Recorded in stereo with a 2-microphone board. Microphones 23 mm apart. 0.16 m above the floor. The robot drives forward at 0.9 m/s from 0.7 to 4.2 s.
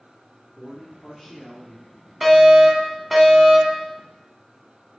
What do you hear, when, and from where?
0.6 s a man speaking: 10° right (ahead or behind), 4.5 m
2.2 s a fire alarm: 10° right (ahead or behind), 1.9 m